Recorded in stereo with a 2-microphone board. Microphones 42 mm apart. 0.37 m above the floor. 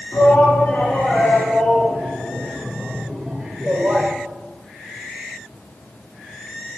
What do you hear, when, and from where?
0.1 s a shout: 20° left (ahead or behind), 3 m; by 4.1 s 35° right (ahead or behind), 1.2 m